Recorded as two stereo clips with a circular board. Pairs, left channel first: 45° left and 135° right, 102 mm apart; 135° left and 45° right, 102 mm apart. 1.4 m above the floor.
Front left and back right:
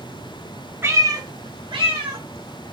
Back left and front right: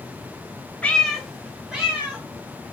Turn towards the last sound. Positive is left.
turn(degrees=-120)